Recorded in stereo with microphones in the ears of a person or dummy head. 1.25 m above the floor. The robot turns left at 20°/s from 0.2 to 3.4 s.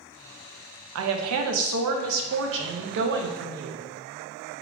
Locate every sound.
0.9 s a woman speaking: 80° right, 0.6 m; by 3.9 s 125° right, 0.6 m